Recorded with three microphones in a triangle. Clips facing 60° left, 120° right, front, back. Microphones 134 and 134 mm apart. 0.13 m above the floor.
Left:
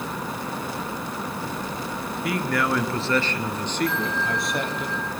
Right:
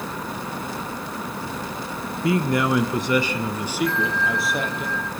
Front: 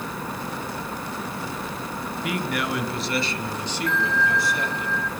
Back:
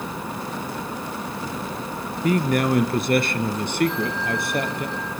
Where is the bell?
130° right, 1.0 m.